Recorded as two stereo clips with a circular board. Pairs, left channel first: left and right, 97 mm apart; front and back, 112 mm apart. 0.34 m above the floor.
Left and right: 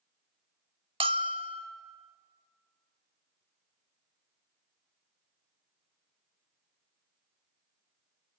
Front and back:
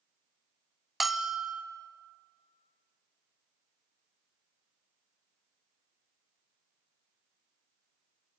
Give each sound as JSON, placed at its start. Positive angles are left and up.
{"t": 1.0, "sound": "a bell", "azimuth_deg": -95, "distance_m": 0.9}